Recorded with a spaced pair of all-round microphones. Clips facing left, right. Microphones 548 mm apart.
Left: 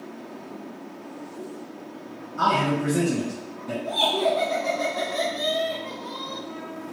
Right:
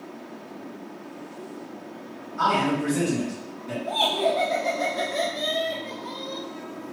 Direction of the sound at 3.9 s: 5° right (ahead or behind).